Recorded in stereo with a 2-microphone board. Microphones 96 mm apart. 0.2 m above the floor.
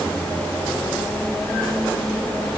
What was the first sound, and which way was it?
Only background noise.